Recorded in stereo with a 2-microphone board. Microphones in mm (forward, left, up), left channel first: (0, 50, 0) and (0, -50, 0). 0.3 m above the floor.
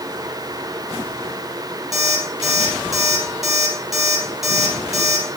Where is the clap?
No clap in this recording.